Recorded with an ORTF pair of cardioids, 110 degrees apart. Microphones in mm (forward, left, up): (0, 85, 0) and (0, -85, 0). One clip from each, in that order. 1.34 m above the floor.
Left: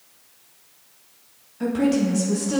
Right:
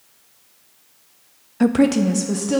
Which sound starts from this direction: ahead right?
A woman speaking, at 1.6 s.